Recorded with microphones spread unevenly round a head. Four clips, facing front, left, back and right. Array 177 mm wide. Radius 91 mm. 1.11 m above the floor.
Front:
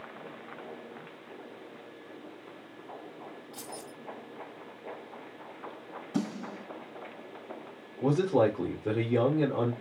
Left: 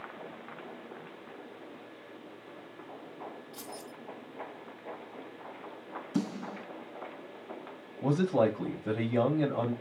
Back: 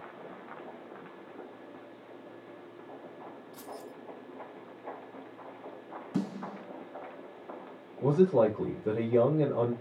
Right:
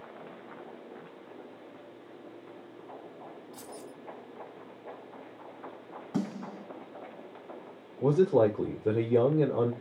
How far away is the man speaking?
About 3.5 m.